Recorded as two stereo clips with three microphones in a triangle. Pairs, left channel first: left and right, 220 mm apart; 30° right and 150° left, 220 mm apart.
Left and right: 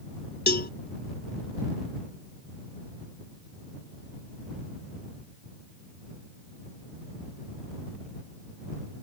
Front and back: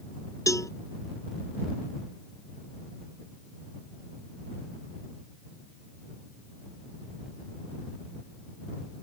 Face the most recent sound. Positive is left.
turn(degrees=45)